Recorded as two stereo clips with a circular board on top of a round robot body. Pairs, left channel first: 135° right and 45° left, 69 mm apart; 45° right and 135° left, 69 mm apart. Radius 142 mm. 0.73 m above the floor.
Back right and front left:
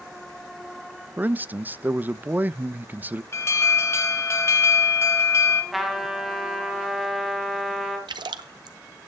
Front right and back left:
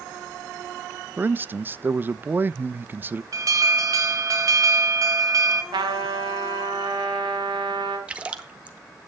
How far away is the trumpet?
About 3.5 m.